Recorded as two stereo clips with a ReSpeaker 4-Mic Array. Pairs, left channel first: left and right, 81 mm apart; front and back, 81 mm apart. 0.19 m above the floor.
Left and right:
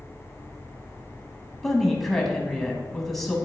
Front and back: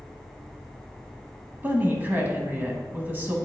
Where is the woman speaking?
170° left, 1.1 m.